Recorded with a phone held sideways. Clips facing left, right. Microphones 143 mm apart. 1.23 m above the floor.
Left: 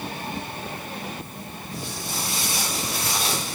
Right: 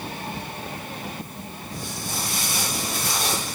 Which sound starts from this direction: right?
Footsteps, at 1.7 s.